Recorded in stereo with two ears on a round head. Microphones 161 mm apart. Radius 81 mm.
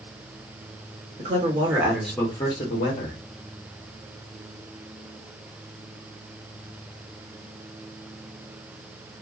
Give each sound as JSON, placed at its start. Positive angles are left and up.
{"t": 1.2, "sound": "a man speaking", "side_deg": -40, "distance_m": 1.0}